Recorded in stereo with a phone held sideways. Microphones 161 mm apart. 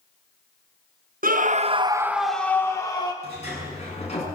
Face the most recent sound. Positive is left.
turn(degrees=45)  # may be behind; listen again after turning